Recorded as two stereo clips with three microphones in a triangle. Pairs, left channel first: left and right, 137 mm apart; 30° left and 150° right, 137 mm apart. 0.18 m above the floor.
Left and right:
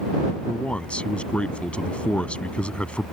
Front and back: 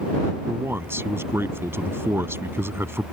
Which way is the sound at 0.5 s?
160° left.